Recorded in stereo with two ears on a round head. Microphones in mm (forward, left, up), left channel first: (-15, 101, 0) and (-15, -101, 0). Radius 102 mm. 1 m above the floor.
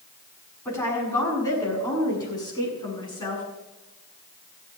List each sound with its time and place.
0.7 s a woman speaking: 15° left (ahead or behind), 7 m; by 3.4 s 20° left (ahead or behind), 8 m